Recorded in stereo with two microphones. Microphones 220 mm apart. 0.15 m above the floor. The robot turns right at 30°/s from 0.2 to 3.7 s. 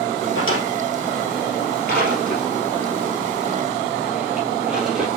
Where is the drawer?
70° left (ahead or behind), 2.5 m; by 5.1 s 5° right (ahead or behind), 2.5 m.